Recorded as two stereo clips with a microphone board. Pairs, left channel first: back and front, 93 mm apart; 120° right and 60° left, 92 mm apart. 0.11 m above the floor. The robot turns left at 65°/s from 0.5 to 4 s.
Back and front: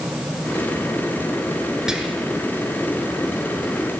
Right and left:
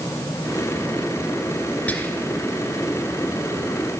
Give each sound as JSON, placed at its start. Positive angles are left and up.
{"t": 1.9, "sound": "whispering", "azimuth_deg": -75, "distance_m": 1.3}